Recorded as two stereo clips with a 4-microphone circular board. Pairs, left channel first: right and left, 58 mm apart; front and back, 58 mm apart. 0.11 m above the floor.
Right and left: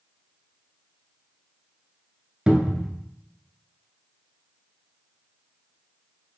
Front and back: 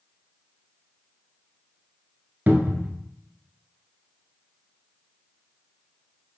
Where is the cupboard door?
155° left, 0.7 m.